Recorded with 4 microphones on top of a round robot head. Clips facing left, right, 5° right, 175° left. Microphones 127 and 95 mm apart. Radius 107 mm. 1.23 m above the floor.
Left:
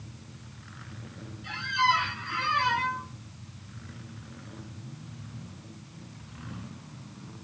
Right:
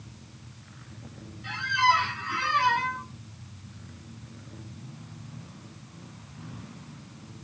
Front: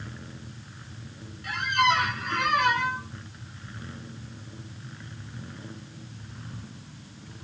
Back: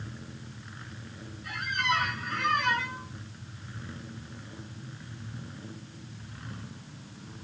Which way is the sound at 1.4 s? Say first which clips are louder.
Right 2 dB, front 7 dB; 40° right.